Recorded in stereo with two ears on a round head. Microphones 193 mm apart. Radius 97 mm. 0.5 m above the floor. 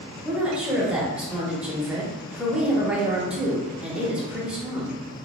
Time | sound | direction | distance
0.2 | a woman speaking | 5° right (ahead or behind) | 0.8 m